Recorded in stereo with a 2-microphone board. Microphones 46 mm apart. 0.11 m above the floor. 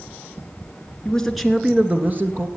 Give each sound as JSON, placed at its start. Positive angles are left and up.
{"t": 1.1, "sound": "a man speaking", "side_deg": 20, "distance_m": 1.2}